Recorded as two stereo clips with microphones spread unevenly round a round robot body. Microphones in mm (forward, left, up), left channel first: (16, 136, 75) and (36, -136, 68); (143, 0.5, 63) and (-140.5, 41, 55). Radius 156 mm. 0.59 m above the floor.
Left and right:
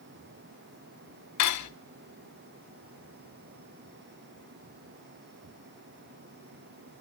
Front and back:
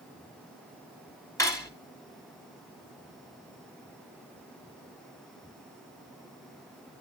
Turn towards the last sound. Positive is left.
turn(degrees=70)